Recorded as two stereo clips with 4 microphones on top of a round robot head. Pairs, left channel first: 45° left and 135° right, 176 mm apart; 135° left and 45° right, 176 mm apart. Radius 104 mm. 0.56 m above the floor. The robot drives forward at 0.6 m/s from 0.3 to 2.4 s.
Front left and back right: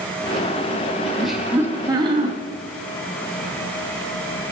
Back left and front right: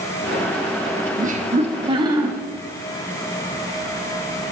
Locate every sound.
1.2 s laughter: 45° right, 1.0 m; by 2.3 s 115° right, 0.9 m